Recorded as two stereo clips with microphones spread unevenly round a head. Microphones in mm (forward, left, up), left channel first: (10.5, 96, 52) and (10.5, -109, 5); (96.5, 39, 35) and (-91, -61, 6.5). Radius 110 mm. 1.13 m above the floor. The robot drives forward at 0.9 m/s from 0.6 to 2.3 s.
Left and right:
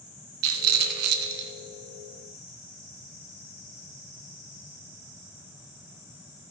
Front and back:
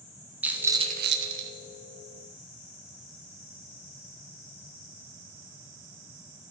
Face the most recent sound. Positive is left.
turn(degrees=-155)